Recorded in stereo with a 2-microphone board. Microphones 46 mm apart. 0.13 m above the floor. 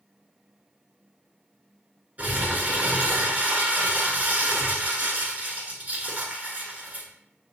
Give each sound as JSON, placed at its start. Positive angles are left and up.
{"t": 2.2, "sound": "crumpling", "side_deg": -35, "distance_m": 1.0}